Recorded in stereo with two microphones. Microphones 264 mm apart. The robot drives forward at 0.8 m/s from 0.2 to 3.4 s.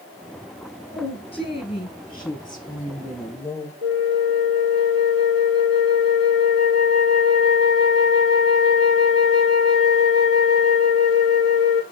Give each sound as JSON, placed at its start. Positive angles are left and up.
{"t": 0.9, "sound": "a woman speaking", "side_deg": 20, "distance_m": 1.9}
{"t": 3.8, "sound": "a flute", "side_deg": -60, "distance_m": 1.8}